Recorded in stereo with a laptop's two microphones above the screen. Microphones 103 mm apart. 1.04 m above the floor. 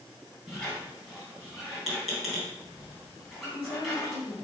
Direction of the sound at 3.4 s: 50° left (ahead or behind).